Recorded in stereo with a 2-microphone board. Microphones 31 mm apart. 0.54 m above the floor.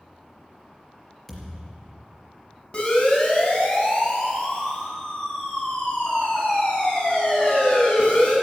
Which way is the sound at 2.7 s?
35° left (ahead or behind).